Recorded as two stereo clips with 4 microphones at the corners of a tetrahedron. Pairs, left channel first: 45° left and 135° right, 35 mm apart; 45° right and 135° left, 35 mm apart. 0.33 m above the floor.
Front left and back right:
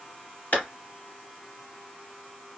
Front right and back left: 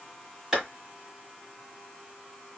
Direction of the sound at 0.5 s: 65° left.